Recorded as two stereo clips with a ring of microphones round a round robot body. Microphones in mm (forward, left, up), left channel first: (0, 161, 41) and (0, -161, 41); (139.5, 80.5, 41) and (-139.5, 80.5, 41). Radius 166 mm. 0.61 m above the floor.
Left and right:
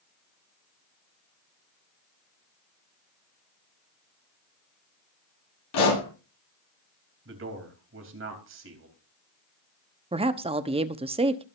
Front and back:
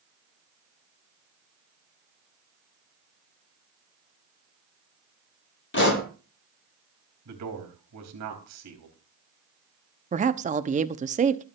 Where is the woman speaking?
145° right, 1.0 m.